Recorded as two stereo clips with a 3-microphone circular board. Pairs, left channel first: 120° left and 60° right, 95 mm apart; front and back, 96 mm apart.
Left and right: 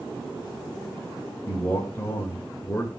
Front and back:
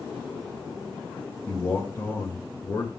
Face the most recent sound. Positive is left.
turn(degrees=55)